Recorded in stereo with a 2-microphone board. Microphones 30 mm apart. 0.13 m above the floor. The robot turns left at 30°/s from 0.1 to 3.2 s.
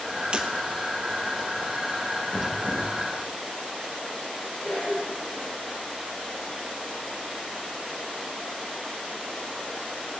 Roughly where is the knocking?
Left.